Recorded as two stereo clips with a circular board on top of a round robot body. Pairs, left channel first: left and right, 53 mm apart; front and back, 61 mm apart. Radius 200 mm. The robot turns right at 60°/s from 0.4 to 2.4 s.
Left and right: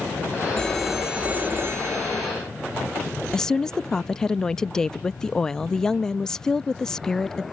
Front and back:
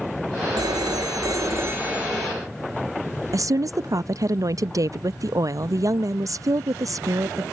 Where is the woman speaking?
165° left.